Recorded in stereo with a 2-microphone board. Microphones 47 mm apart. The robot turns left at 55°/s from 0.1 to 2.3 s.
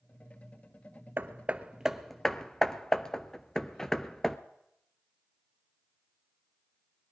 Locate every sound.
1.2 s hammering: 45° right (ahead or behind), 0.6 m; by 4.4 s 10° left (ahead or behind), 0.6 m